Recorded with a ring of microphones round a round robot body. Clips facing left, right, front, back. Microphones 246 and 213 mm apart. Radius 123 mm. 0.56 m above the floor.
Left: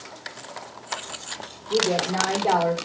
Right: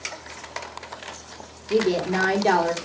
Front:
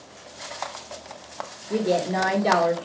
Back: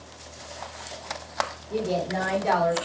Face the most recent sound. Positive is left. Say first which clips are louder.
# right 3 dB, front 4 dB
turn(degrees=-40)